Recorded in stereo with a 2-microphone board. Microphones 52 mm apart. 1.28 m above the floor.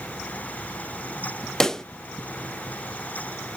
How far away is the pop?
About 0.5 m.